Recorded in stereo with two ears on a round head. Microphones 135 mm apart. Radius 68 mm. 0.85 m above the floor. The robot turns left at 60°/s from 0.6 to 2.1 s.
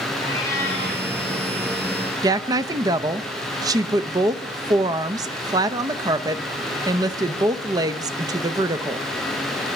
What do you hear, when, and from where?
0.2 s a cat meowing: 20° left (ahead or behind), 7 m; by 1.1 s 5° right (ahead or behind), 7 m
2.2 s a woman speaking: 25° right (ahead or behind), 0.6 m